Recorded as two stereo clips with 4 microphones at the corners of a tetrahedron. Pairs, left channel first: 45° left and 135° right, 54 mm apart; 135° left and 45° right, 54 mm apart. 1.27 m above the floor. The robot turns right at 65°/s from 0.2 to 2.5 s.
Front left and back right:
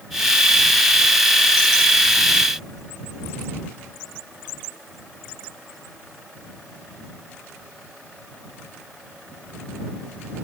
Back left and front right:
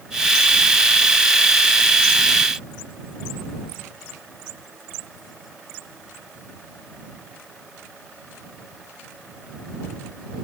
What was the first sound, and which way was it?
Only background noise.